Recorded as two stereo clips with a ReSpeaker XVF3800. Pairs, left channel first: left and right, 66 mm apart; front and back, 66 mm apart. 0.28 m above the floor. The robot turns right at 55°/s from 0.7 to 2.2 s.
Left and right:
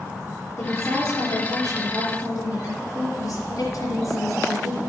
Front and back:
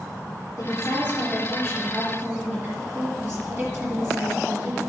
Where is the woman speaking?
45° left, 4.5 m; by 4.8 s 125° left, 4.5 m.